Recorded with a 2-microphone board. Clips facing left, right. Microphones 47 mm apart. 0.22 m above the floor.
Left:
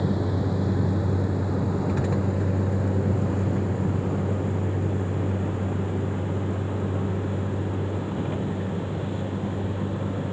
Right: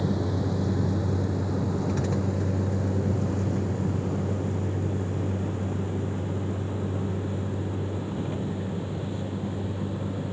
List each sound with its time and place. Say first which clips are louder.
0.0 s a vehicle: left 2 dB; 10° left (ahead or behind); by 10.3 s 20° left (ahead or behind)